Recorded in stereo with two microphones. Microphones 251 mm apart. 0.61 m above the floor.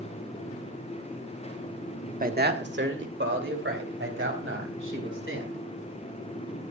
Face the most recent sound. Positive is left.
turn(degrees=-55)  # may be behind; listen again after turning